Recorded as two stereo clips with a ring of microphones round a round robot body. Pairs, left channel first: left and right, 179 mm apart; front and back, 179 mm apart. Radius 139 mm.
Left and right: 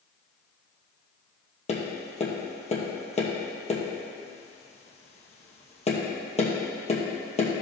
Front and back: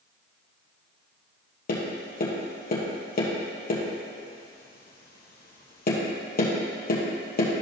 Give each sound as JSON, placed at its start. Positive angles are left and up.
{"t": 1.7, "sound": "tapping", "azimuth_deg": 35, "distance_m": 2.5}